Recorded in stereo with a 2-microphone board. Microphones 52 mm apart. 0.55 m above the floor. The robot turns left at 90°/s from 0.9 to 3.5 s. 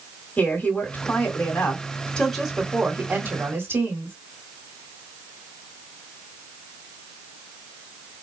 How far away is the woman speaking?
About 1.9 m.